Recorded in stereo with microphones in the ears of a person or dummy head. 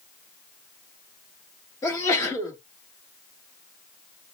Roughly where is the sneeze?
Centre.